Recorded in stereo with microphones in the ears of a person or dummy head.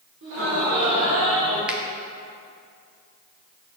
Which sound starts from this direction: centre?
A finger snap, at 1.7 s.